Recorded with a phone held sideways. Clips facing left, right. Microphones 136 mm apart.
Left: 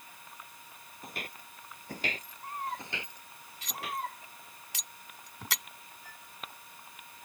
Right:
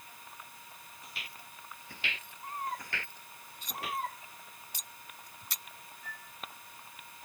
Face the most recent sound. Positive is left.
turn(degrees=30)  # may be behind; listen again after turning